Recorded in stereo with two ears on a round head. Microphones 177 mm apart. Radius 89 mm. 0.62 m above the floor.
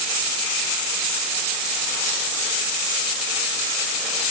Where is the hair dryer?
No hair dryer in this recording.